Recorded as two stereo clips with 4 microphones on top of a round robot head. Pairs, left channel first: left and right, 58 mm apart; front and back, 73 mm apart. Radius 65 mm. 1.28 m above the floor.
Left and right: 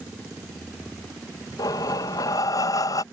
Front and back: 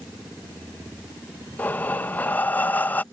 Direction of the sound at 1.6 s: 65° left.